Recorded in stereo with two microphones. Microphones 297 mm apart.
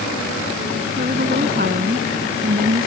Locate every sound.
1.0 s a woman speaking: 30° right (ahead or behind)